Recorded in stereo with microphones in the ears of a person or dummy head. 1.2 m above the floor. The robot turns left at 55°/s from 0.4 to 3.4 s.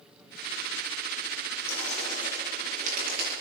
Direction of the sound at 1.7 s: 20° left.